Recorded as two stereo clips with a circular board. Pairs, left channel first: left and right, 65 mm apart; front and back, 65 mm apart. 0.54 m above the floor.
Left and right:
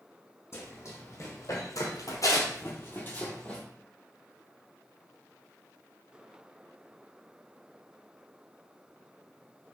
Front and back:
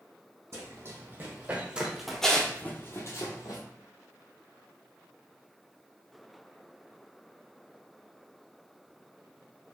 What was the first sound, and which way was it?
Running footsteps, 140° left.